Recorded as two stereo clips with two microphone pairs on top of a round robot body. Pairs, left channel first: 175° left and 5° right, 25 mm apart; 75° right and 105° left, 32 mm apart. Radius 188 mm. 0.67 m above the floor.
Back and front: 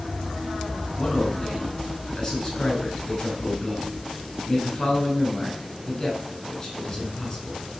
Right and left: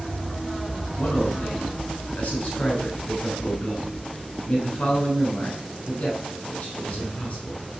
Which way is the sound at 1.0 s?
120° right.